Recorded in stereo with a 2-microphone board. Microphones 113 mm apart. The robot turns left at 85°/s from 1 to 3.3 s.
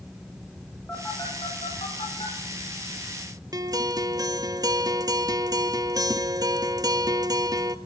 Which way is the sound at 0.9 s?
15° left (ahead or behind).